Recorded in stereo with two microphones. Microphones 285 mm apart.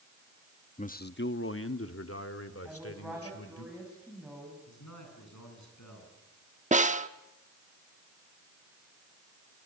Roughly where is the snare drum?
Right.